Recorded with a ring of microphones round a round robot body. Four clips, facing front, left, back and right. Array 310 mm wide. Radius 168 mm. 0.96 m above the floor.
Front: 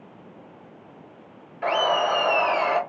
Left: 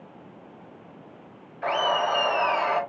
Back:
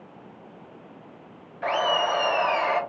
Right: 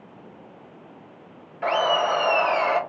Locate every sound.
1.6 s laughter: 45° right, 1.6 m